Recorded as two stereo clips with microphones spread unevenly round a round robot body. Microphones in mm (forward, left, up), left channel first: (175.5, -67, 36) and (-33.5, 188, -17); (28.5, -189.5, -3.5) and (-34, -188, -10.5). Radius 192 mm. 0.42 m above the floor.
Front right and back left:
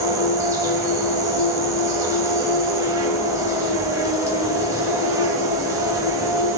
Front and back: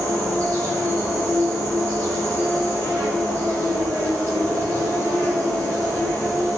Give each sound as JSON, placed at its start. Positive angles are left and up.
{"t": 0.0, "sound": "an insect", "azimuth_deg": 50, "distance_m": 0.9}